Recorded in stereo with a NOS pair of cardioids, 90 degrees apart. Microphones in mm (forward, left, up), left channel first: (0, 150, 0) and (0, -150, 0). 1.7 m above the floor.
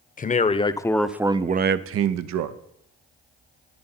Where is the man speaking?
30° left, 1.0 m; by 2.6 s 80° right, 0.8 m.